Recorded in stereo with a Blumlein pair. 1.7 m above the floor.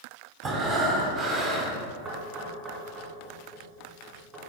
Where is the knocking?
25° right, 2.5 m.